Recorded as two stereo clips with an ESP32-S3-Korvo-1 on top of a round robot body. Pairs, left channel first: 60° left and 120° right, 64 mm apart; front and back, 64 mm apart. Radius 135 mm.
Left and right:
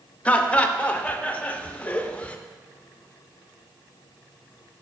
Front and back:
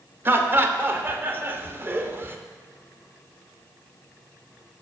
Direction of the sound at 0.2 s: 125° left.